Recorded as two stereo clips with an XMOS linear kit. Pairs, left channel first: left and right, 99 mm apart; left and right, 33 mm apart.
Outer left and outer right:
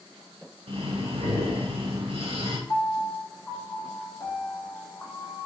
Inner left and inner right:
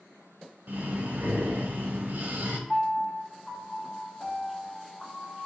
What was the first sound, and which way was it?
Breathing, 80° right.